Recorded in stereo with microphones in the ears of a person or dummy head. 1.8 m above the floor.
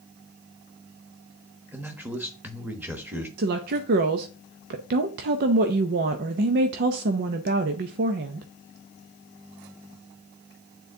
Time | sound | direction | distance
1.7 | a man speaking | 15° right (ahead or behind) | 1.1 m
3.4 | a woman speaking | 55° right (ahead or behind) | 0.6 m